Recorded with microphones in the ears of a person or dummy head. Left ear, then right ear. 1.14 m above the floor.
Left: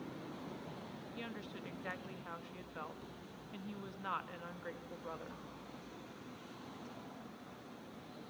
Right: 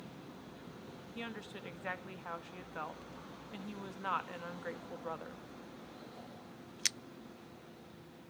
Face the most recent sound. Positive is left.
turn(degrees=-15)  # may be behind; listen again after turning